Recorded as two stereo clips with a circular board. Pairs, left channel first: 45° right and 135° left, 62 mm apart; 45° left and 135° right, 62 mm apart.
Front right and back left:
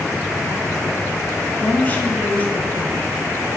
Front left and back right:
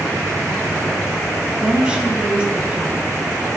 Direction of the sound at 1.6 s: 75° right.